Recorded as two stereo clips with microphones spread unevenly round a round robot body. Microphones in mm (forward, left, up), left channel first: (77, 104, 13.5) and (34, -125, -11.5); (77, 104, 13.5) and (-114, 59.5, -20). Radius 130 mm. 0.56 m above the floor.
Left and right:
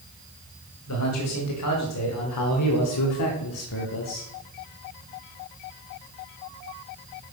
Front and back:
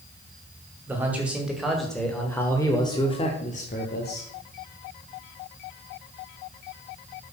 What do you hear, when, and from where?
0.9 s a man speaking: 115° left, 2.5 m; by 4.3 s 45° left, 1.3 m